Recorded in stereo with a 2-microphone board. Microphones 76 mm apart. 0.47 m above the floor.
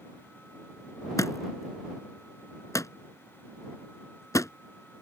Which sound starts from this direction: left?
A thud, at 1.2 s.